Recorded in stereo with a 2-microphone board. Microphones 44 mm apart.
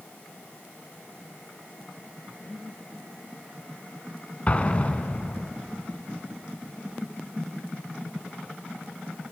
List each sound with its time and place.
4.5 s an explosion: 30° left (ahead or behind), 1.3 m